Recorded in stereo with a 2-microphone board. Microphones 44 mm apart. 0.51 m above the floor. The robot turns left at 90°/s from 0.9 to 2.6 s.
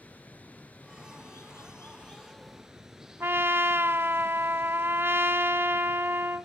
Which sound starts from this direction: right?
A trumpet, at 3.2 s.